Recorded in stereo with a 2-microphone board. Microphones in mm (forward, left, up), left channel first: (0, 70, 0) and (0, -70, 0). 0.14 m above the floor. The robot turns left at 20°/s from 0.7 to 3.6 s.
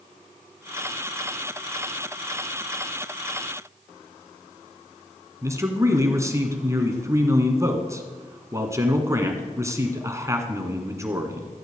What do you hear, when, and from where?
5.4 s a man speaking: 20° right (ahead or behind), 1.6 m